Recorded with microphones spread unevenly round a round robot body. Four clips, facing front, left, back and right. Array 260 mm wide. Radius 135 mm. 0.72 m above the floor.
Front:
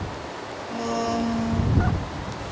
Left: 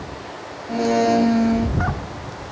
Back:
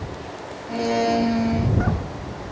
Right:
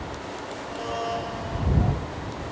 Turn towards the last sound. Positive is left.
turn(degrees=95)